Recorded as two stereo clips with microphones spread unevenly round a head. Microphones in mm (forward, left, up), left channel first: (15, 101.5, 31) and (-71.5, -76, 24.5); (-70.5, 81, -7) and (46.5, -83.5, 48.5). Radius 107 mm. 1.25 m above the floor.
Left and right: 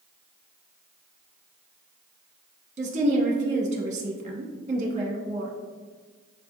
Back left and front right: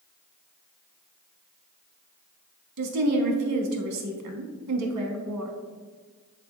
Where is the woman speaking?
60° right, 0.9 m.